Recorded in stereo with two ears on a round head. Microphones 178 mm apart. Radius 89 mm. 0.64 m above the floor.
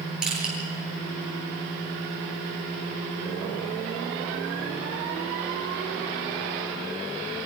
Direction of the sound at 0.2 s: 5° right (ahead or behind).